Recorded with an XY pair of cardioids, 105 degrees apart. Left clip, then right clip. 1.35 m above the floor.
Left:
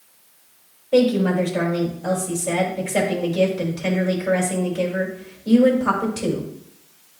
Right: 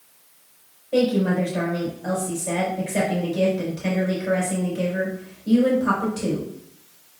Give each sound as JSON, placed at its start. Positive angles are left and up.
{"t": 0.9, "sound": "a woman speaking", "azimuth_deg": 35, "distance_m": 5.0}